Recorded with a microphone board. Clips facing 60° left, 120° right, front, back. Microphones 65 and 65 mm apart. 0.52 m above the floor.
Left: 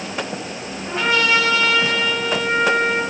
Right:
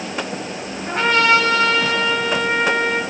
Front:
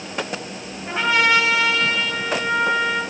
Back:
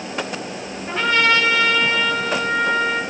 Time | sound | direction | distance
0.9 | a trumpet | 80° right | 2.5 m